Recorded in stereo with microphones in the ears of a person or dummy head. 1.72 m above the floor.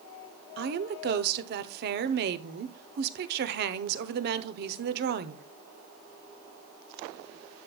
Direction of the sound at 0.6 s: 60° right (ahead or behind).